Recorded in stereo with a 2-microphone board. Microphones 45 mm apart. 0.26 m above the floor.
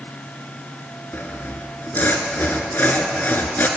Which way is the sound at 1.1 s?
45° left (ahead or behind).